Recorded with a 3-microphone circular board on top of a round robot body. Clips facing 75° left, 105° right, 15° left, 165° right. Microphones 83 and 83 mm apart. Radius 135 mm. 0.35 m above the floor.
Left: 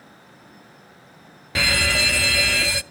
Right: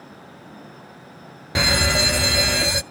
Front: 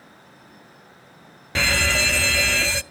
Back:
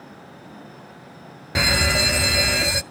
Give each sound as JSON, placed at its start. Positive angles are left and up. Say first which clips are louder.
{"t": 1.6, "sound": "an alarm", "louder": "right 2 dB, back 1 dB", "azimuth_deg": -115, "distance_m": 0.6}